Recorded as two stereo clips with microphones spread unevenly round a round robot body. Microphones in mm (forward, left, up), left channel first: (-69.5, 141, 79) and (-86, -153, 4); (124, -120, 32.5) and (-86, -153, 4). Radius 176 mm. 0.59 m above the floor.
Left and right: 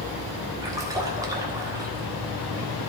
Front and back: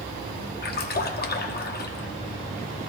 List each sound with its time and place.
0.6 s a splash: 30° right, 1.1 m